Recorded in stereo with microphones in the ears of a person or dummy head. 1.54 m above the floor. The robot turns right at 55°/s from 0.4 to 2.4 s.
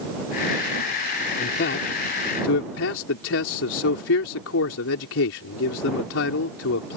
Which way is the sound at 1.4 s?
50° left.